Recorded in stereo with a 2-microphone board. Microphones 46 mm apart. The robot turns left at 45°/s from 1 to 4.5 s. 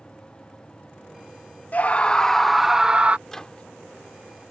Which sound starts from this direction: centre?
A microwave, at 3.3 s.